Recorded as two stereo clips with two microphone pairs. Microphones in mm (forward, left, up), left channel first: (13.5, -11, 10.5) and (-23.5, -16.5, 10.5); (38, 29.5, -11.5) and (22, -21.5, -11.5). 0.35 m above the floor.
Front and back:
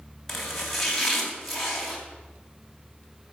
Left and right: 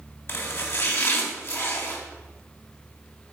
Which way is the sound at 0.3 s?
90° left.